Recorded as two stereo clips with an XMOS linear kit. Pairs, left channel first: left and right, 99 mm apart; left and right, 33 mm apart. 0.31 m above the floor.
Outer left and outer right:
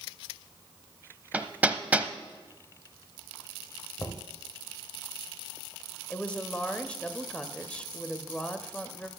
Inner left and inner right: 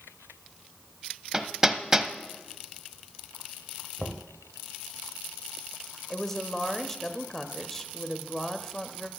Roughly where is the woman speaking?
Centre.